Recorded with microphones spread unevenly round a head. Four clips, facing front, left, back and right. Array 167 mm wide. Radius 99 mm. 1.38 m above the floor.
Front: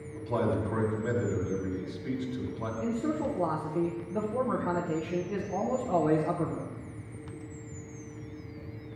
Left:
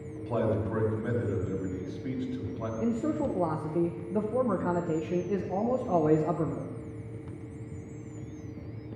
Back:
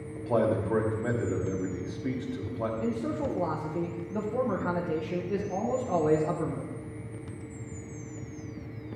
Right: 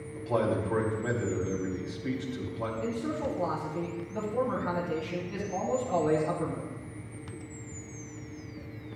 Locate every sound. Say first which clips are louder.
0.1 s a man speaking: right 1 dB, back 3 dB; 175° right, 2.5 m
2.8 s a man speaking: left 5 dB, front 4 dB; 110° left, 0.9 m